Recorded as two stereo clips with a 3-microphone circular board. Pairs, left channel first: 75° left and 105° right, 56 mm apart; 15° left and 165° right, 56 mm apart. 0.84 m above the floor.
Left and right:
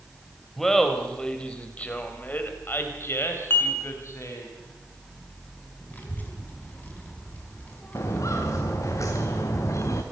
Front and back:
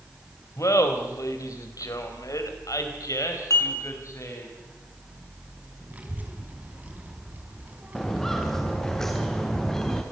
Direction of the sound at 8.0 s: 95° left.